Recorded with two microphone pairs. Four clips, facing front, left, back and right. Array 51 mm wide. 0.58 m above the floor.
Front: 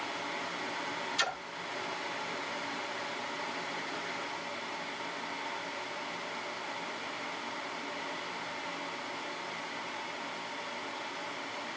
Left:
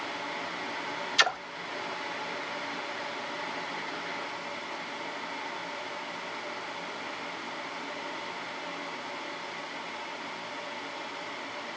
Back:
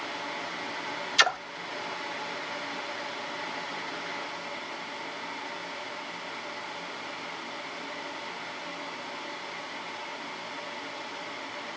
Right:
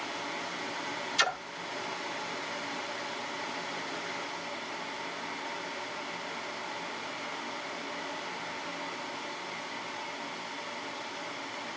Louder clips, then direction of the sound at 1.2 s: Left 4 dB, back 11 dB; 165° left.